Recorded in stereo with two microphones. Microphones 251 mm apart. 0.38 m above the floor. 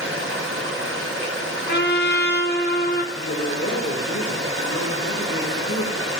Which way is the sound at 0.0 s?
65° right (ahead or behind).